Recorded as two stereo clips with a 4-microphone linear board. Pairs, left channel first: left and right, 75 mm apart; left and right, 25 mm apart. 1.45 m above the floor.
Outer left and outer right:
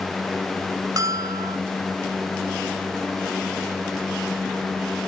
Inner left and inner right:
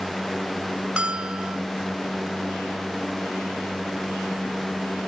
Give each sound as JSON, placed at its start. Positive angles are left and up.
{"t": 1.0, "sound": "a bell", "side_deg": -45, "distance_m": 1.0}